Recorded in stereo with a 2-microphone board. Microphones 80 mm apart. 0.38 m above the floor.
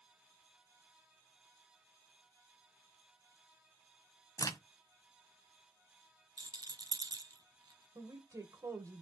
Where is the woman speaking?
45° right (ahead or behind), 1.8 m.